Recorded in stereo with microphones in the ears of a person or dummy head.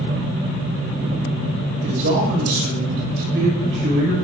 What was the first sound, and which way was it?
A man speaking, 75° right (ahead or behind).